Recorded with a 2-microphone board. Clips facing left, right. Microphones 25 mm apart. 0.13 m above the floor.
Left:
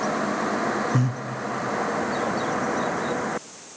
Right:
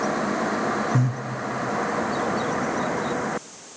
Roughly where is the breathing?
Left.